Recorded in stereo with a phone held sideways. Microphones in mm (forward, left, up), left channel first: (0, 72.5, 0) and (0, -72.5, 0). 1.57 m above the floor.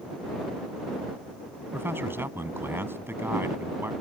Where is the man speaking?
15° right (ahead or behind).